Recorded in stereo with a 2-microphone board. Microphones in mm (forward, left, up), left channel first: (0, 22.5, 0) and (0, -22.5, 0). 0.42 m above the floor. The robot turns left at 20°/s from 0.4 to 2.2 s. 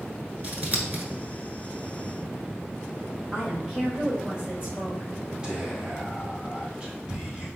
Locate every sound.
0.4 s scissors: 35° right (ahead or behind), 0.9 m; by 1.0 s 45° right (ahead or behind), 0.9 m
3.3 s a woman speaking: 25° right (ahead or behind), 1.8 m
5.4 s whispering: 20° right (ahead or behind), 1.8 m